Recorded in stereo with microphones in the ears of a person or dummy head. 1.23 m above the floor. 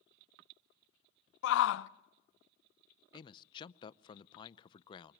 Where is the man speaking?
20° left (ahead or behind), 0.6 m.